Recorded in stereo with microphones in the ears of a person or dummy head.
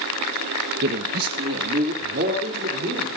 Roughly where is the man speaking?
Right.